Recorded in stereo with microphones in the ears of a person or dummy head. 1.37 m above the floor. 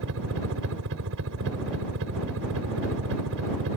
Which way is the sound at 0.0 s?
70° right (ahead or behind).